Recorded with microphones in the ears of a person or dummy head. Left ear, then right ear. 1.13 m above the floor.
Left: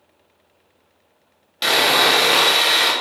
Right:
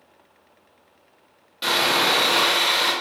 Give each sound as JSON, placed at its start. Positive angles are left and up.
{"t": 1.6, "sound": "sawing", "side_deg": 25, "distance_m": 0.9}